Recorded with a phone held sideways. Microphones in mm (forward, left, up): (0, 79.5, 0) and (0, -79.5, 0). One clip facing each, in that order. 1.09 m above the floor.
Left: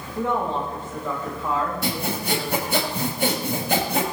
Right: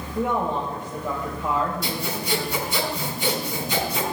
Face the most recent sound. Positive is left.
turn(degrees=65)  # may be behind; listen again after turning